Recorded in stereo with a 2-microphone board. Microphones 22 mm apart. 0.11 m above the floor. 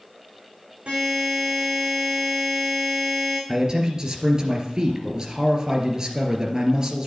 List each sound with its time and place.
0.9 s a buzzer: 80° right, 6.5 m
3.5 s a man speaking: 30° right (ahead or behind), 2.5 m